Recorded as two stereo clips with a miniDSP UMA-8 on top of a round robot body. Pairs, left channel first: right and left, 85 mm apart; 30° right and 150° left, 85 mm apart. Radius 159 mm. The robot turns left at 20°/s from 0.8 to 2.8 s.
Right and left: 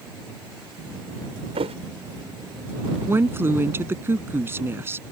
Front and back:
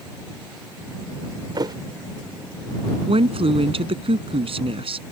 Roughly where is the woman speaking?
Behind left.